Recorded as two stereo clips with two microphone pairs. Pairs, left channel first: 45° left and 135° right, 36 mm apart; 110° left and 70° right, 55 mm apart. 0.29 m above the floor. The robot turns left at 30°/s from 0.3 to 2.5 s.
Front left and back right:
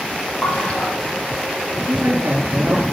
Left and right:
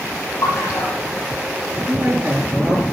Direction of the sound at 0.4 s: 110° left.